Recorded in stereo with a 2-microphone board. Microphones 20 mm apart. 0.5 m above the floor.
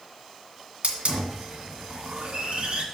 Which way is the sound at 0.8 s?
85° right.